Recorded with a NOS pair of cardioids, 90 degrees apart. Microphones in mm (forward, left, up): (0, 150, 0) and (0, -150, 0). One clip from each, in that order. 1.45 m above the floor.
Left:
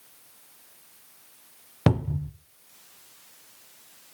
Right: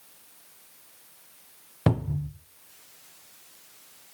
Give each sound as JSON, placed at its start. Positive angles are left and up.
{"t": 1.9, "sound": "a cupboard door", "azimuth_deg": 20, "distance_m": 0.7}